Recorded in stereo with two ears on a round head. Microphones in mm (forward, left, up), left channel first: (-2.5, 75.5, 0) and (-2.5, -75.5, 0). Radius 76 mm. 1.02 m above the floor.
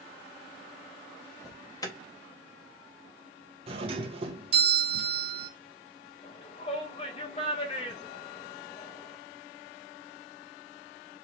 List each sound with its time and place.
1.4 s an alarm: 20° left (ahead or behind), 1.1 m
3.7 s a doorbell: 35° right (ahead or behind), 1.2 m
6.2 s a shout: 35° left (ahead or behind), 1.3 m